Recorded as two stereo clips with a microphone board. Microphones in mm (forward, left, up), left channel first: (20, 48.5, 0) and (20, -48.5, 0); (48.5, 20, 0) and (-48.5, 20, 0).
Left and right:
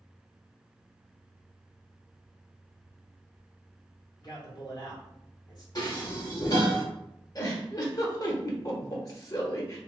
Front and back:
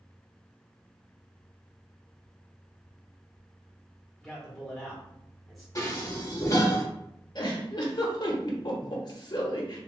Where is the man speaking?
90° left, 1.8 m.